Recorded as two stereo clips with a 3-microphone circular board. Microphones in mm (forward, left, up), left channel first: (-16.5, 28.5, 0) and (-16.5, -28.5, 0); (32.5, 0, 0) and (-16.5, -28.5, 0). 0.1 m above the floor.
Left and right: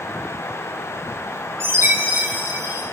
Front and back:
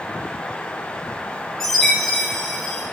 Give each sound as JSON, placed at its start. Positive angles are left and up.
{"t": 1.6, "sound": "a chime", "azimuth_deg": -60, "distance_m": 8.5}